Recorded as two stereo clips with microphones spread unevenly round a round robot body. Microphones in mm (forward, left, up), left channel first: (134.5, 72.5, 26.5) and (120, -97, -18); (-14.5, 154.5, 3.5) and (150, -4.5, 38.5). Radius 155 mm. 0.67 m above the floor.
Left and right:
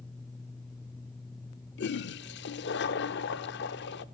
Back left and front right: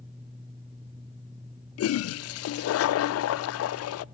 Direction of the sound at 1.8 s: 110° left.